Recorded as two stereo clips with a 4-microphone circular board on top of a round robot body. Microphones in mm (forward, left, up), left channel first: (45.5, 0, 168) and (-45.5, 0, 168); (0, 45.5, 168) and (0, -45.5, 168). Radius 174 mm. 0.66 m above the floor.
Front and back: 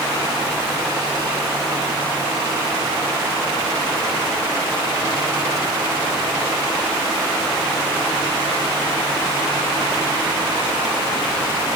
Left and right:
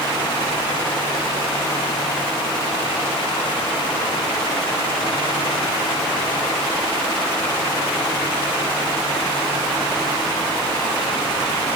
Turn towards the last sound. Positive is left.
No sound to turn to.